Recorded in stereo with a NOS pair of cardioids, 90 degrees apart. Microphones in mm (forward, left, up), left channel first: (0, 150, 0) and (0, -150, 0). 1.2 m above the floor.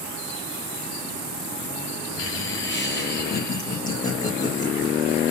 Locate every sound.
2.2 s laughter: 50° left, 0.8 m; by 4.9 s 20° left, 2 m